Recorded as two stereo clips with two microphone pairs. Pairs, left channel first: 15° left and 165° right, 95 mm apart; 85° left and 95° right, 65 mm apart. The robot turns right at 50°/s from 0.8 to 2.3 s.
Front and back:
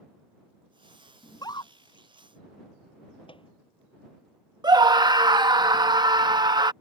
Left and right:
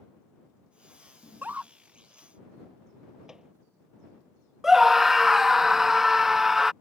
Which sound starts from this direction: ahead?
A microwave, at 3.3 s.